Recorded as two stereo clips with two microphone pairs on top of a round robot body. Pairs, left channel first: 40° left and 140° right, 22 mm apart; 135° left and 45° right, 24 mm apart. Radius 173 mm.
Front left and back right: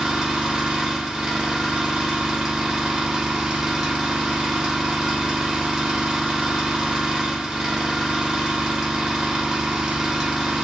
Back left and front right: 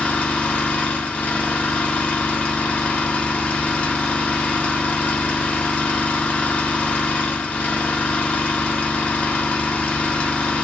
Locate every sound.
0.0 s an engine running: 160° left, 1.3 m